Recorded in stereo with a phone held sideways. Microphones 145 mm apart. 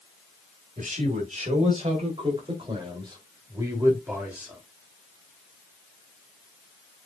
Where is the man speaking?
60° right (ahead or behind), 4 m; by 4.6 s 10° right (ahead or behind), 3.5 m.